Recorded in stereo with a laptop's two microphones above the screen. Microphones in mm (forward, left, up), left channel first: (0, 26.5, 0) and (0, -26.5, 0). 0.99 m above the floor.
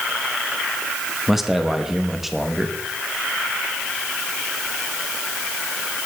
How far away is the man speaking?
About 1.1 m.